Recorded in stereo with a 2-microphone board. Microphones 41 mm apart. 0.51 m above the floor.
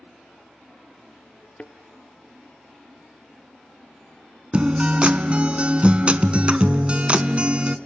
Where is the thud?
30° left (ahead or behind), 0.9 m.